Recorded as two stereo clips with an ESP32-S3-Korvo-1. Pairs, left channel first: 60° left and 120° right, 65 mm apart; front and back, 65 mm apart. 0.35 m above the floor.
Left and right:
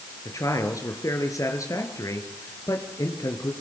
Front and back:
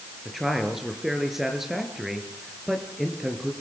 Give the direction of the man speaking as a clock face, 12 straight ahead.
9 o'clock.